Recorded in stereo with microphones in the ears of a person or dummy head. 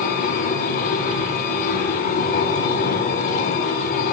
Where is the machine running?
50° left (ahead or behind), 3 m.